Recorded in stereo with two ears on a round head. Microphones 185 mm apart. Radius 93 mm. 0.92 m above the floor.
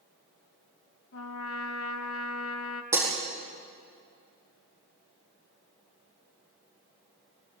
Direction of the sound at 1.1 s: 75° left (ahead or behind).